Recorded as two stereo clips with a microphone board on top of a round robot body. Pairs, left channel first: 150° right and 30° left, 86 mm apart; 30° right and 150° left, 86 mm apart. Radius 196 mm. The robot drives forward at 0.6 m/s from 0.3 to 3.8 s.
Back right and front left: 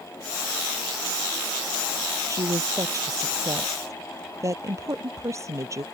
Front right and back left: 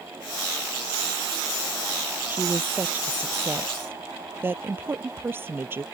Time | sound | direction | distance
2.3 | a woman speaking | 80° left | ?